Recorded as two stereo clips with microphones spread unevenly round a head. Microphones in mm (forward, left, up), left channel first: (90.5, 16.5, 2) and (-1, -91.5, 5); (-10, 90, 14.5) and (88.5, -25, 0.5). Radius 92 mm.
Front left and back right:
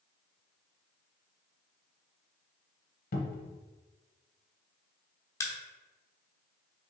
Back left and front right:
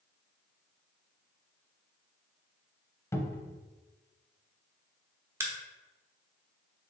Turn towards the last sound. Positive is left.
turn(degrees=15)